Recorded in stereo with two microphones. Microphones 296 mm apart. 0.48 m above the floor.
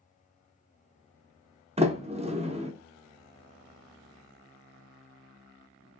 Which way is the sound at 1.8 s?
20° right (ahead or behind).